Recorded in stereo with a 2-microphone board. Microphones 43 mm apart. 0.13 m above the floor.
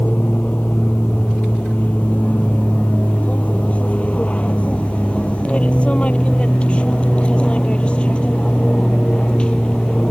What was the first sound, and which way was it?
An aircraft, 35° left (ahead or behind).